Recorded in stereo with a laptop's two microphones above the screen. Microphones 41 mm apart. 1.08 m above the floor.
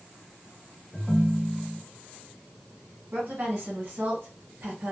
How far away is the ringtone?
About 0.7 m.